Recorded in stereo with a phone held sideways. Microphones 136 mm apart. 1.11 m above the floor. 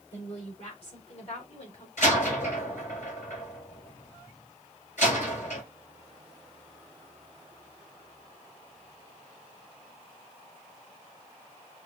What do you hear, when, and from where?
0.1 s a woman speaking: 50° left (ahead or behind), 3.5 m
2.0 s a door slam: 65° left (ahead or behind), 4.5 m